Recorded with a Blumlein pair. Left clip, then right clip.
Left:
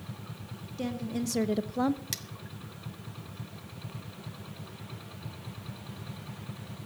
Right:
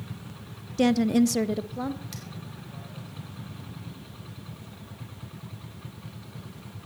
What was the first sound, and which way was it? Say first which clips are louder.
A woman speaking: right 13 dB; 60° right.